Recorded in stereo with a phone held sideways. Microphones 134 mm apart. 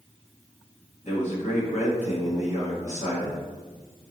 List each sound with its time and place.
1.0 s a man speaking: 60° left (ahead or behind), 1.3 m